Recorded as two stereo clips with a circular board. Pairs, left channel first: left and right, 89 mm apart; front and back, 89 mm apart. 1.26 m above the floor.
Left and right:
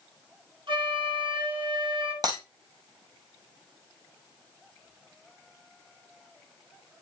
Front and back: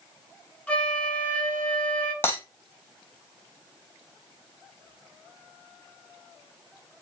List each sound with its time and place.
0.7 s a flute: 75° right, 1.8 m
2.2 s breaking glass: 60° right, 2.5 m